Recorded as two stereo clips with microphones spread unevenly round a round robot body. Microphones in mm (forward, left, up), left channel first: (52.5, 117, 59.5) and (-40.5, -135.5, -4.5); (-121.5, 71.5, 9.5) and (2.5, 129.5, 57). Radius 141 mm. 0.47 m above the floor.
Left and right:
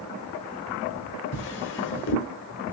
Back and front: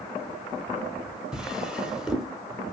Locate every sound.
1.3 s a drawer: 120° left, 0.8 m